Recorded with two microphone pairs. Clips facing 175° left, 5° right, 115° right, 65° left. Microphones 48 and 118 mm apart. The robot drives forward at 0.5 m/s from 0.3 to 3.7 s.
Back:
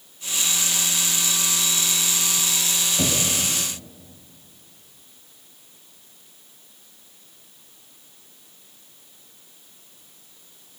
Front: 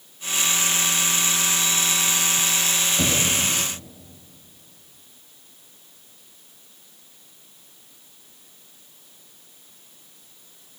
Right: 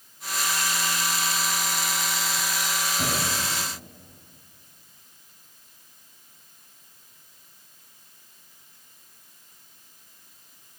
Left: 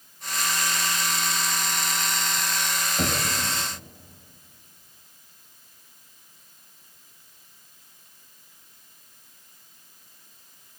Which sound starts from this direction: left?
Knocking, at 3.0 s.